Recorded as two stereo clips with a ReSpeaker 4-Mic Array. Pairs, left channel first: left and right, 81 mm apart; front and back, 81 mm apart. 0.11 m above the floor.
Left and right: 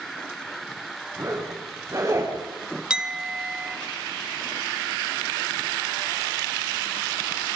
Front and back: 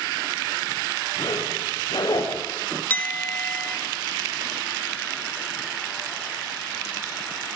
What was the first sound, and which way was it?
A zipper, 35° right.